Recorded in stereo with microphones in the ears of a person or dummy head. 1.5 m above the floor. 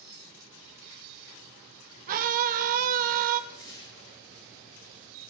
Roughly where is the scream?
Right.